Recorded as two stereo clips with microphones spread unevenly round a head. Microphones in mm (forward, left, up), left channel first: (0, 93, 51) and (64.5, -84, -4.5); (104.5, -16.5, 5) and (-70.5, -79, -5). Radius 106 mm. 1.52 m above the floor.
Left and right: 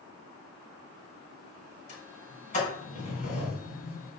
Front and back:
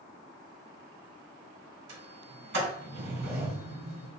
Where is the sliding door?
160° left, 4 m.